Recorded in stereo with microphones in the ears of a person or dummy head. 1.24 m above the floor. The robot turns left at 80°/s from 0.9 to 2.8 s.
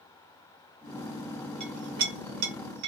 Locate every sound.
1.6 s a clink: 30° right (ahead or behind), 1.1 m; by 2.9 s 55° right (ahead or behind), 1.1 m